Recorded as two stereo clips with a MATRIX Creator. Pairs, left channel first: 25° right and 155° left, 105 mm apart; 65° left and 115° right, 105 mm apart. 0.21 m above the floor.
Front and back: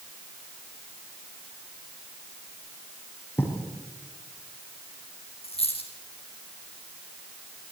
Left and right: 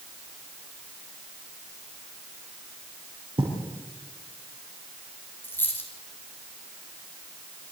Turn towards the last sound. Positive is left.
turn(degrees=0)